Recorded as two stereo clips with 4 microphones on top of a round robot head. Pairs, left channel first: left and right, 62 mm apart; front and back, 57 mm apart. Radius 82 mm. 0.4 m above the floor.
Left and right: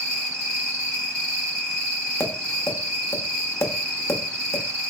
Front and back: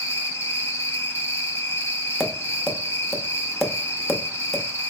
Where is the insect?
10° left, 1.9 m.